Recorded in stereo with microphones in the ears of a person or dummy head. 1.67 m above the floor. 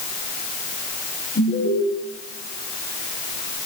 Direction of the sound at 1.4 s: 40° left (ahead or behind).